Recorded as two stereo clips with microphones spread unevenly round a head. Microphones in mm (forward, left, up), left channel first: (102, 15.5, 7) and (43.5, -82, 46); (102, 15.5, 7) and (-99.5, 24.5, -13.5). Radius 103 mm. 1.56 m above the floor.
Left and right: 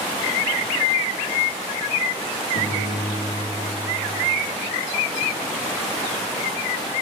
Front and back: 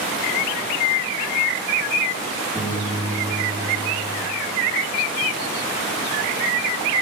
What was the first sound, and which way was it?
A piano, 85° left.